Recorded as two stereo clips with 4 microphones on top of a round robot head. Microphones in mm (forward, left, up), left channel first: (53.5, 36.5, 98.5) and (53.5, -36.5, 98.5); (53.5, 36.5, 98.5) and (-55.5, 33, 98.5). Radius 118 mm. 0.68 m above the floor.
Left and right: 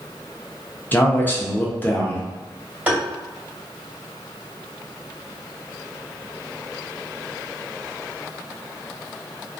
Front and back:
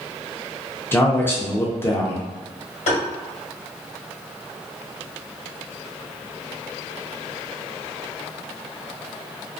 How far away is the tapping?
About 1.4 m.